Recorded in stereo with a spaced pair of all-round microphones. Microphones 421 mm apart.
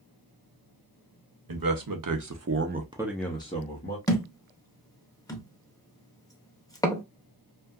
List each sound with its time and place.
1.5 s a man speaking: 55° right (ahead or behind), 0.8 m; by 4.0 s 25° left (ahead or behind), 0.8 m
4.1 s a thud: 10° left (ahead or behind), 0.6 m